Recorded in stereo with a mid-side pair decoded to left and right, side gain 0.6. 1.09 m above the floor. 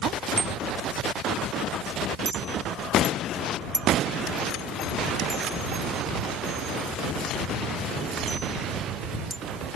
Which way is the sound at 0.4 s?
25° right.